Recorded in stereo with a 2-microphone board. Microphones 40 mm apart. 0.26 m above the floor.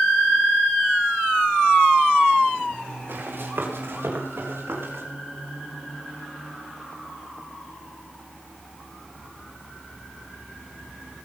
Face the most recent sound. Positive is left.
turn(degrees=-70)  # may be behind; listen again after turning